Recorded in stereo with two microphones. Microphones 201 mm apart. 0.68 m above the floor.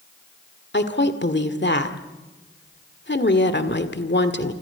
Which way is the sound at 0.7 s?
60° left (ahead or behind).